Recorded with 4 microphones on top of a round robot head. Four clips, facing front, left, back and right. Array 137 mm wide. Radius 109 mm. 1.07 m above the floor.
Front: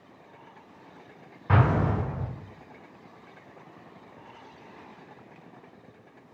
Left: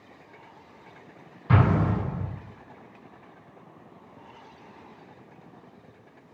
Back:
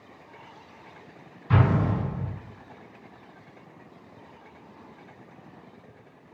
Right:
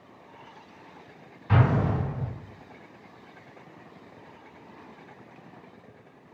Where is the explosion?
30° left, 1.6 m.